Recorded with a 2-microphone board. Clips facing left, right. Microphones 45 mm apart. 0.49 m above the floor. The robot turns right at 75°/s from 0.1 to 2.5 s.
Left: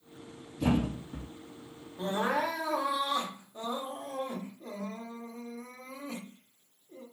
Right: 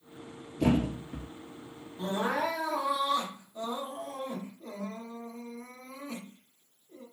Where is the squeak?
I don't hear a squeak.